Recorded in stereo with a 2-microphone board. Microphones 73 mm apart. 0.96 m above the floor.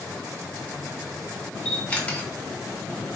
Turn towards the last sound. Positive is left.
turn(degrees=20)  # may be behind; listen again after turning